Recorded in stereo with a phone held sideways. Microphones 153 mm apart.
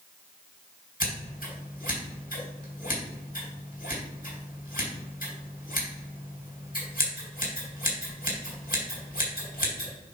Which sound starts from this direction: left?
Scissors, at 1.0 s.